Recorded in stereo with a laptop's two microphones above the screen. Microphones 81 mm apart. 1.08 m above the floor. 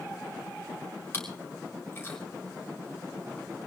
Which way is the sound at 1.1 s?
30° left (ahead or behind).